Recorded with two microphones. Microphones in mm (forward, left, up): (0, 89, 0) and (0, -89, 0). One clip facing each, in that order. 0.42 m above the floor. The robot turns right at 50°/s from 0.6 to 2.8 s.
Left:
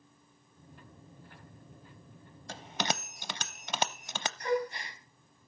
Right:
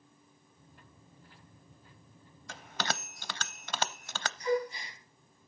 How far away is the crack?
No crack in this recording.